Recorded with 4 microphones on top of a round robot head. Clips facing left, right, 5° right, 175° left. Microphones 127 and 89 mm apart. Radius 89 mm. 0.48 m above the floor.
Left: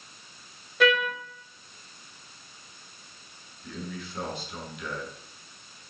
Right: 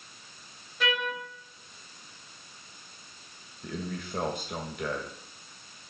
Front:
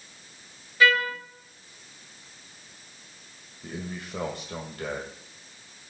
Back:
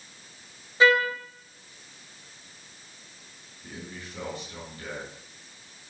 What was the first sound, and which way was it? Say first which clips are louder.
A trumpet: left 7 dB, back 2 dB; 110° left.